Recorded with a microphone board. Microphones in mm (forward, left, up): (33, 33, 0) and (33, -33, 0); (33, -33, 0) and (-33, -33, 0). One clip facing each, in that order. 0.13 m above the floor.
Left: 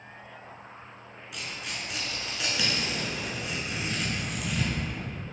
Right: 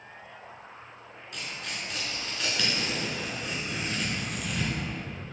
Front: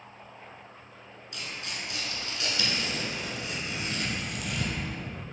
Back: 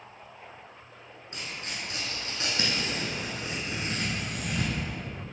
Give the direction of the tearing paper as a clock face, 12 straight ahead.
6 o'clock.